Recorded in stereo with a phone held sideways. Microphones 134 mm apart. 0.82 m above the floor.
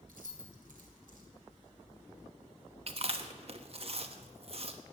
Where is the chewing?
50° right (ahead or behind), 1.1 m.